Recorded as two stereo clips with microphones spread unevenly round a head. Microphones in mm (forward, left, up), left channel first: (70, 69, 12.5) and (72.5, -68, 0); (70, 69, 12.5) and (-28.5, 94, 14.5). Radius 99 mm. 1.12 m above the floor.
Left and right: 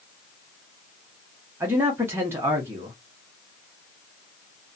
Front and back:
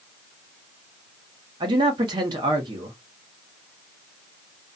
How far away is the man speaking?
About 0.8 m.